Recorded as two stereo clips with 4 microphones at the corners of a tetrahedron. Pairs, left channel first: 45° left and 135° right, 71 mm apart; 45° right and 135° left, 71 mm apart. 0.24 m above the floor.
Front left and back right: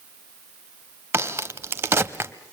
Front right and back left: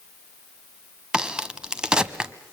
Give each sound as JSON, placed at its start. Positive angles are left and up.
{"t": 1.1, "sound": "a crack", "azimuth_deg": -155, "distance_m": 0.9}